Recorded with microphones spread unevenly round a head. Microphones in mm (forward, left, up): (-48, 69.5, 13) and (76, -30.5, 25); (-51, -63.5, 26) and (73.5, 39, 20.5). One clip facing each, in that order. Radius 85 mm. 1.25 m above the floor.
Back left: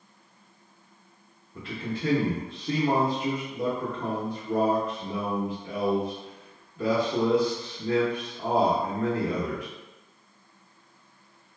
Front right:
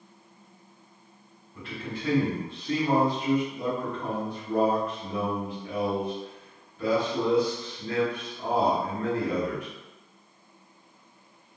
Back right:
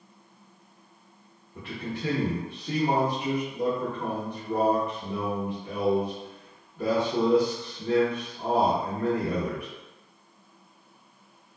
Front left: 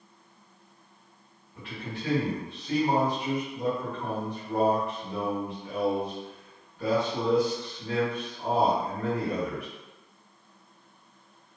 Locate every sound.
1.6 s a man speaking: 170° left, 1.0 m